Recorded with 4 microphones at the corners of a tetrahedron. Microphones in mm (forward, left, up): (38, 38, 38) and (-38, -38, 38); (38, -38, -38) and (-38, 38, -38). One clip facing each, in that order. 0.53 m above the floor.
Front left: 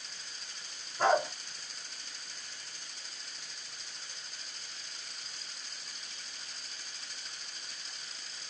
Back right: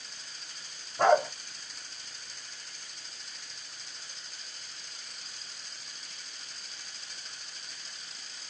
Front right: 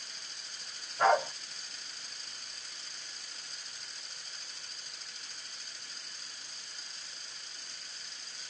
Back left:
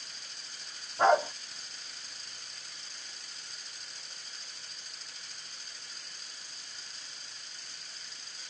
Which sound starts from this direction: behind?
A dog barking, at 1.0 s.